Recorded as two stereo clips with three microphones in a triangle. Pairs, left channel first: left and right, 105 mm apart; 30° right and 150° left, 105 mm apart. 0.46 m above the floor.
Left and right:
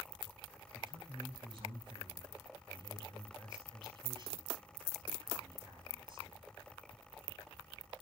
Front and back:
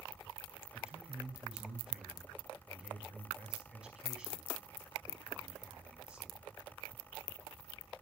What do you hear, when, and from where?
0.7 s a man speaking: 130° right, 4.5 m